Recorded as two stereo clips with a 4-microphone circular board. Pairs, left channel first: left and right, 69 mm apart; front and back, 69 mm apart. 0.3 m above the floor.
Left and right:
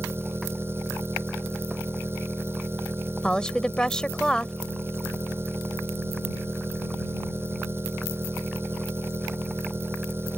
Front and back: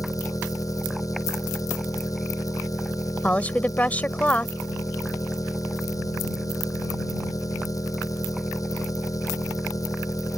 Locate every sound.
0.0 s an engine running: 35° right
3.2 s a woman speaking: 30° left